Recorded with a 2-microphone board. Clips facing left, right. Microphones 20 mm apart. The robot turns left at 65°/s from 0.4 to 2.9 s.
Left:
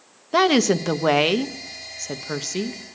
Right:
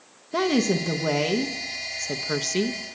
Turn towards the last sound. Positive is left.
turn(degrees=-40)